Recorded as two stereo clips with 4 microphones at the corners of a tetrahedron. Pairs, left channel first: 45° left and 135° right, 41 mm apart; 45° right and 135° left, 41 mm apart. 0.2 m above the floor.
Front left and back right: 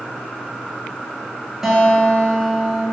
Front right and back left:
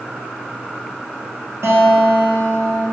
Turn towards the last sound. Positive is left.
turn(degrees=145)